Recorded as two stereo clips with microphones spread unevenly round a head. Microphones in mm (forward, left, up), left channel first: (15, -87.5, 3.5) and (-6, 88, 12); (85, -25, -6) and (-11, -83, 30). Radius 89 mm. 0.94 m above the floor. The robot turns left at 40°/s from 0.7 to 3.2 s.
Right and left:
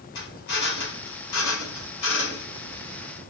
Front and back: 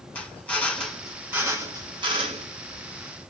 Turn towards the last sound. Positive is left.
turn(degrees=-150)